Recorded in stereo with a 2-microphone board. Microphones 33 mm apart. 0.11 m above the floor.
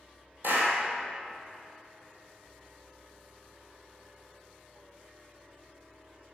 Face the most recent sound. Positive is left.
turn(degrees=-65)  # may be behind; listen again after turning